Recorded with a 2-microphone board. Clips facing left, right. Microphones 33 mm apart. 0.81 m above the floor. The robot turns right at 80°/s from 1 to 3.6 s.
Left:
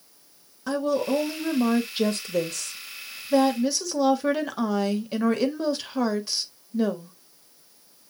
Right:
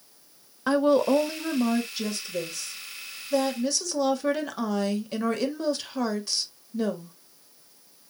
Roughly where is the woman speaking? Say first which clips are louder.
Right 4 dB; ahead right.